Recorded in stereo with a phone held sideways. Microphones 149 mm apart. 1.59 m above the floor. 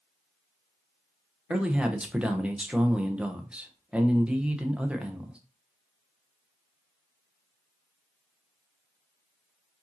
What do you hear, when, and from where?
1.5 s a man speaking: 10° right (ahead or behind), 0.7 m